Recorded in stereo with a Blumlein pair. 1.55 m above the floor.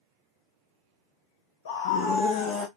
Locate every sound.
1.6 s a scream: 60° left, 0.6 m; by 2.7 s 25° left, 0.9 m